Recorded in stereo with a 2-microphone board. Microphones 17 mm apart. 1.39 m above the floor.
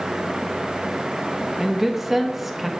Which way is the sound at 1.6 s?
15° right (ahead or behind).